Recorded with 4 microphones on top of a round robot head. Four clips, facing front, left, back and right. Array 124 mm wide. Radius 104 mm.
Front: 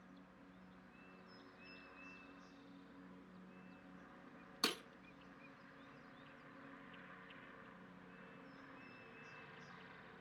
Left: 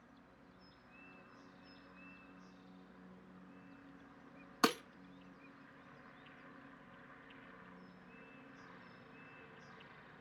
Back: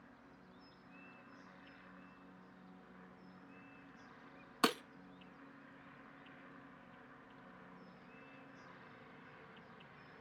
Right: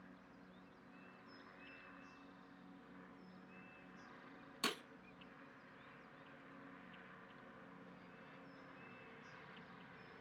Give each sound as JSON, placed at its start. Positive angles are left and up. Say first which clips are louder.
{"t": 4.6, "sound": "breaking glass", "louder": "left 11 dB, back 9 dB", "azimuth_deg": 130, "distance_m": 0.8}